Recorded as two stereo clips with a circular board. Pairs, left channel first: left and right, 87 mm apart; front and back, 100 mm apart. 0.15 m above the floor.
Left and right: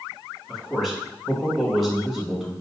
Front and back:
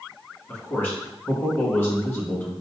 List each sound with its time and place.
0.5 s a man speaking: straight ahead, 1.0 m